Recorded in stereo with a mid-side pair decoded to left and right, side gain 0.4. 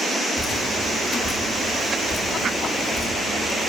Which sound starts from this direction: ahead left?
Dripping, at 0.4 s.